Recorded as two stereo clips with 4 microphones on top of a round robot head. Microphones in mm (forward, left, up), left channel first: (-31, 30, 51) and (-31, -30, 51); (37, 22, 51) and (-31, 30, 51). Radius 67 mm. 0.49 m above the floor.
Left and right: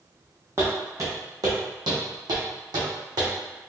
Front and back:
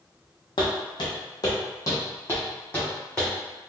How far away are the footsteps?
About 1.1 m.